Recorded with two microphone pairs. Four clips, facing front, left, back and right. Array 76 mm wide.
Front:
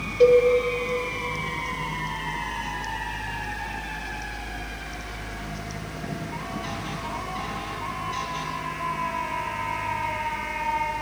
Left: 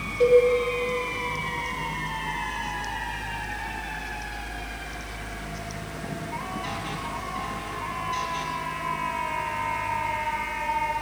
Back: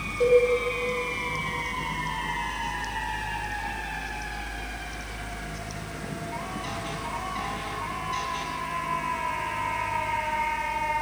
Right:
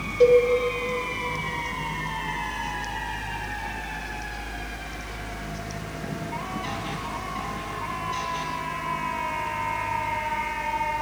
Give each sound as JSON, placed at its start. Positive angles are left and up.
{"t": 0.2, "sound": "a cowbell", "azimuth_deg": -35, "distance_m": 0.7}